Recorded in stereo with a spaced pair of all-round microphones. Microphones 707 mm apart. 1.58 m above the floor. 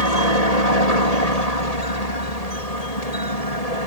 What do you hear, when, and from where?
0.0 s a helicopter: 60° left (ahead or behind)